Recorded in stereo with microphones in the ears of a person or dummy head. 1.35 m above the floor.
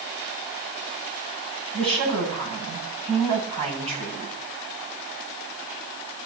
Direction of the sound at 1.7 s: 35° right (ahead or behind).